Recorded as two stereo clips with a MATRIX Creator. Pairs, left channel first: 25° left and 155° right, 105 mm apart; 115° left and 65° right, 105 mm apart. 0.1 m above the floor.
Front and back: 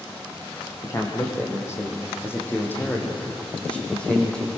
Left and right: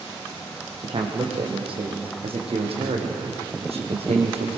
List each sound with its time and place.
0.8 s a man speaking: 35° right, 5 m; by 4.5 s 60° right, 5.5 m